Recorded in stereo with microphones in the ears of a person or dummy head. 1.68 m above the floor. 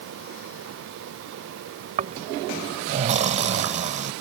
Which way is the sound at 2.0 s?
35° right (ahead or behind).